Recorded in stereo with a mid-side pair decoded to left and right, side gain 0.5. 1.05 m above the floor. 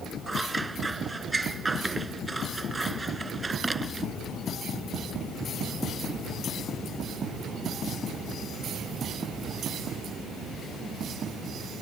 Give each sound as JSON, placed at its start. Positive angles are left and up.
{"t": 0.3, "sound": "scissors", "azimuth_deg": -20}